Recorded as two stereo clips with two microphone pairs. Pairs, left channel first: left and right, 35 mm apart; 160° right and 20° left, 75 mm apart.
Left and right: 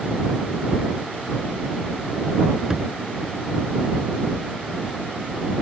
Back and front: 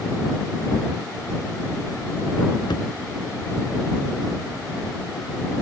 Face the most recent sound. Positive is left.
turn(degrees=-165)